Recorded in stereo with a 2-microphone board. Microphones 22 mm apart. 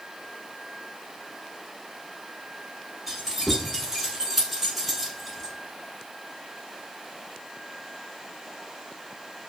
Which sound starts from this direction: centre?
Keys jangling, at 3.1 s.